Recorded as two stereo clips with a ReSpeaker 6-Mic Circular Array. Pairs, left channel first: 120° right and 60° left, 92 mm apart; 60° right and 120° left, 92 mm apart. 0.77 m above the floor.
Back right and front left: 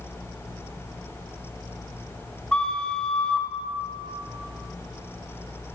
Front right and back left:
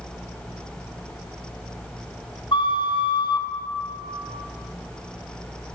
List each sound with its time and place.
2.5 s a flute: 40° right, 0.5 m